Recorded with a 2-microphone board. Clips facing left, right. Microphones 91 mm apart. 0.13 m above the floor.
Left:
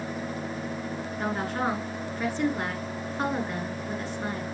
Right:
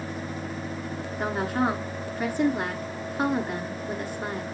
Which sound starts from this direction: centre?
A woman speaking, at 1.2 s.